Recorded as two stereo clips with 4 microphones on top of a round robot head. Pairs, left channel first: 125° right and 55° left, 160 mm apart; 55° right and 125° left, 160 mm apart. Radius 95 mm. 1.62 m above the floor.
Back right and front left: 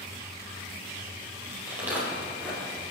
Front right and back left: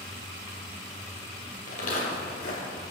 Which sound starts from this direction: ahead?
Footsteps, at 1.7 s.